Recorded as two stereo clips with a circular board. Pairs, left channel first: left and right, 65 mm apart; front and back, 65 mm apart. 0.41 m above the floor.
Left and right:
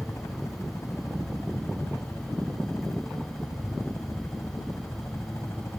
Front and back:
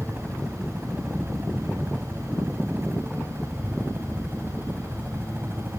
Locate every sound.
0.0 s a helicopter: 120° left; by 5.8 s 125° left